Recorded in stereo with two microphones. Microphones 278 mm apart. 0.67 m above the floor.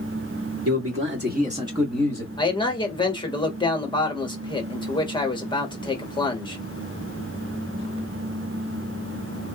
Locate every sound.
0.7 s a man speaking: 55° right (ahead or behind), 1.6 m; by 2.3 s 15° left (ahead or behind), 1.2 m
2.4 s a man speaking: 15° left (ahead or behind), 1.1 m